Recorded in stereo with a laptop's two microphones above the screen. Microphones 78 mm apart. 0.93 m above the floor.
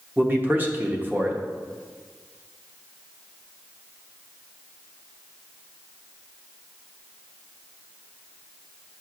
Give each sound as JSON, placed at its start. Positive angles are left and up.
{"t": 0.2, "sound": "a man speaking", "side_deg": -25, "distance_m": 0.8}